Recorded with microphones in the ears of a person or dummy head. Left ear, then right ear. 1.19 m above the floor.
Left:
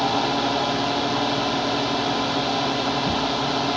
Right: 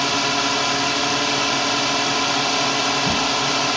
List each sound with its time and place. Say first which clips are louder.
0.0 s a drone: right 2 dB; 55° right (ahead or behind)